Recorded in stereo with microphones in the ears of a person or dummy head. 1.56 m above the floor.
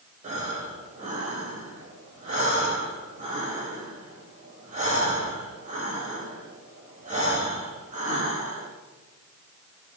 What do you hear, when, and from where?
0.2 s breathing: 40° right (ahead or behind), 4 m